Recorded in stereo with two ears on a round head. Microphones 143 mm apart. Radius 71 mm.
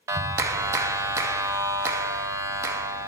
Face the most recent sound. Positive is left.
turn(degrees=-20)  # may be behind; listen again after turning